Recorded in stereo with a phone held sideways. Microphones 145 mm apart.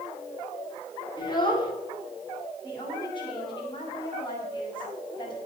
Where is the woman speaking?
30° left (ahead or behind), 6 m.